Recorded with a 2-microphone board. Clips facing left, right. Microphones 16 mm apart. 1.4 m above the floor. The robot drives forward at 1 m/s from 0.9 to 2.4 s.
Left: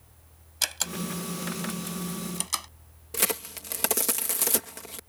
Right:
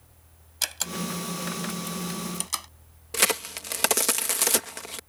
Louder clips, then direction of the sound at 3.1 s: Right 5 dB; 25° right (ahead or behind).